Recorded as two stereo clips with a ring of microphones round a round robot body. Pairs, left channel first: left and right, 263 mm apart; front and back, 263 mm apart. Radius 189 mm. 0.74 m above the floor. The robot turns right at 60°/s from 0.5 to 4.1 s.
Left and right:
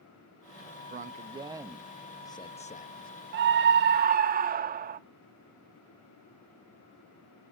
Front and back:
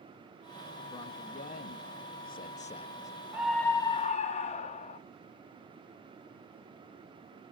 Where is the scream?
100° right, 0.5 m; by 5.0 s 50° right, 0.5 m.